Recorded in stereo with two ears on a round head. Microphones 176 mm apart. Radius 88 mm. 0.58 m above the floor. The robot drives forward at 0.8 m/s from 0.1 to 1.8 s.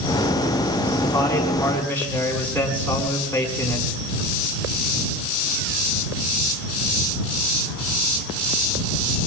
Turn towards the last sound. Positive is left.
turn(degrees=10)  # may be behind; listen again after turning